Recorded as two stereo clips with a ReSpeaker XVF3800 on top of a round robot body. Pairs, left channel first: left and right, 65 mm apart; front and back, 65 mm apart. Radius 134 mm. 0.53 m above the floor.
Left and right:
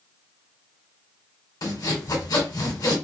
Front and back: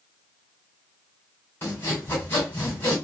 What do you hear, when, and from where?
1.6 s sawing: 65° left, 2.0 m